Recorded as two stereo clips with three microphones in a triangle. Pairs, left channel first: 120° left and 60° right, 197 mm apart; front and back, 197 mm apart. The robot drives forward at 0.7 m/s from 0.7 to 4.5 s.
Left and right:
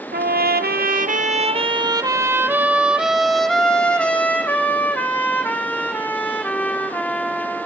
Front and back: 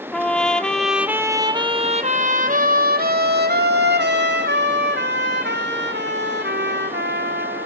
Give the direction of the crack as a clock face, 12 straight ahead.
No crack in this recording.